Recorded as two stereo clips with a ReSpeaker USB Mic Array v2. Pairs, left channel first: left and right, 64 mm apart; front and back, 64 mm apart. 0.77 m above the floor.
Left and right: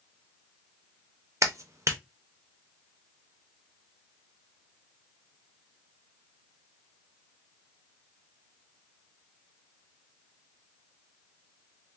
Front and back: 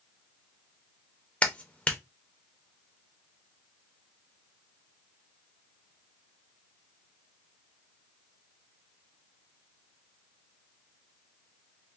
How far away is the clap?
About 0.5 m.